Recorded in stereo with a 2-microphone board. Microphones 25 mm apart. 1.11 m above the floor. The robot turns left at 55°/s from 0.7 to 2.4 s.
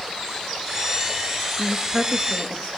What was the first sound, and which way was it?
A woman speaking, 5° left.